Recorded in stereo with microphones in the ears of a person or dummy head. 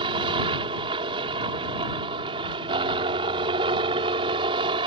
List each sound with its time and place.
0.0 s a helicopter: 25° right (ahead or behind)